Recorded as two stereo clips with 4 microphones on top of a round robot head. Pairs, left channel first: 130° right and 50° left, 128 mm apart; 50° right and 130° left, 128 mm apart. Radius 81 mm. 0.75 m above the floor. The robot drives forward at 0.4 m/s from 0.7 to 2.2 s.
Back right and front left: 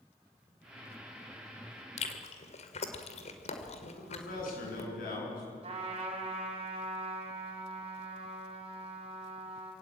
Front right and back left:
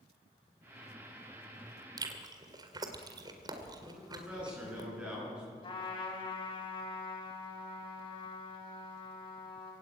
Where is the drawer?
No drawer in this recording.